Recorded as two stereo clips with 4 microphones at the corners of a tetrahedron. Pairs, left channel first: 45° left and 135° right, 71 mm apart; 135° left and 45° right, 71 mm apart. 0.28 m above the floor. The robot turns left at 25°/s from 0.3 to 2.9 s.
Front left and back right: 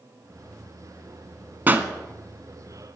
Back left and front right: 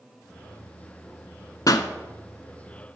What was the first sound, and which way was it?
A pop, 165° left.